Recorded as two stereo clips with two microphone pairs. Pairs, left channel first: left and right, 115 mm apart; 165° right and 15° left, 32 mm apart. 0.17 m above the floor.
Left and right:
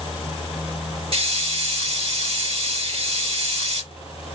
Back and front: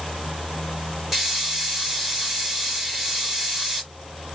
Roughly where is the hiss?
Right.